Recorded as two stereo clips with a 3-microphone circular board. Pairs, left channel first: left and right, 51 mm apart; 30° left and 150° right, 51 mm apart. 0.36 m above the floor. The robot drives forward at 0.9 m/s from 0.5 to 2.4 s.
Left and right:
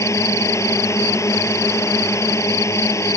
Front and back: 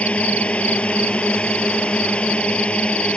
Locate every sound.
0.0 s a drone: 90° left; by 3.2 s 95° left